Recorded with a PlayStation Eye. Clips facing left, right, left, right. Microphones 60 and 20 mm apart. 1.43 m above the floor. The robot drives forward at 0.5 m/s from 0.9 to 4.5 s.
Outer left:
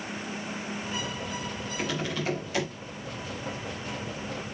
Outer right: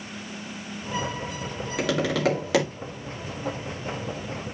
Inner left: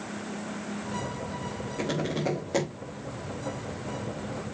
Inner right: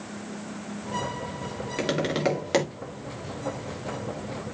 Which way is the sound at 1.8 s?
80° right.